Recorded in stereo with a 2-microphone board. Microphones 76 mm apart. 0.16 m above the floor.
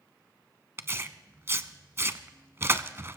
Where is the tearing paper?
35° right (ahead or behind), 0.6 m.